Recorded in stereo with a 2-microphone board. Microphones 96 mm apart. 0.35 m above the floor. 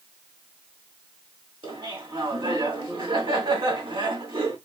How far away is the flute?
I don't hear a flute.